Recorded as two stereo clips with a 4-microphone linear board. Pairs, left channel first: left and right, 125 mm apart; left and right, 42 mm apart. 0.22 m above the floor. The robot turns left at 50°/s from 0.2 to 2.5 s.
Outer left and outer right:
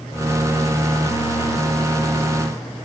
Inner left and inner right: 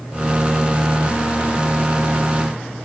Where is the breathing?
I don't hear breathing.